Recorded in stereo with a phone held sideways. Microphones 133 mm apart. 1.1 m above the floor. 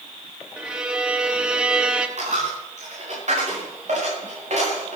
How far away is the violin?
About 1.3 m.